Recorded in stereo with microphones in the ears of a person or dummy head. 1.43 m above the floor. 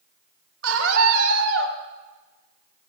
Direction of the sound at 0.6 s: 75° right (ahead or behind).